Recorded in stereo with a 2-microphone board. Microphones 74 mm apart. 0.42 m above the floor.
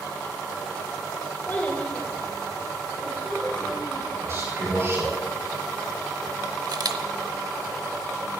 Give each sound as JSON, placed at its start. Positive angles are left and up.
{"t": 1.5, "sound": "a child speaking", "side_deg": 30, "distance_m": 1.3}
{"t": 4.2, "sound": "a man speaking", "side_deg": -40, "distance_m": 5.5}
{"t": 6.7, "sound": "a camera shutter", "side_deg": -60, "distance_m": 0.7}